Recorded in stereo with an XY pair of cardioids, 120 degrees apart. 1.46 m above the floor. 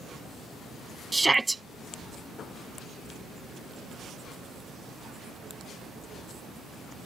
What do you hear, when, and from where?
1.1 s a shout: 10° right